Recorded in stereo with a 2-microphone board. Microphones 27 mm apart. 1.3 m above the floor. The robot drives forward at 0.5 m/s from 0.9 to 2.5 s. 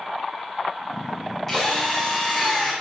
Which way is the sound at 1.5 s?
10° left (ahead or behind).